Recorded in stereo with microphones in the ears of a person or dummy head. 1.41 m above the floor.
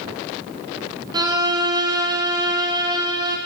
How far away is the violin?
About 0.6 m.